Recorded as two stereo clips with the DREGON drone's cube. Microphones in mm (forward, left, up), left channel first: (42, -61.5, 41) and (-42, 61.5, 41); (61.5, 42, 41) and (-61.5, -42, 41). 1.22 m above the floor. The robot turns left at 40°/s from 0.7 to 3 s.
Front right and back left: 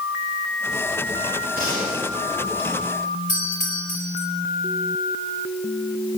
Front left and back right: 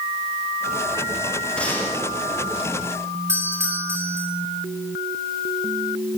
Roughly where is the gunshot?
Behind left.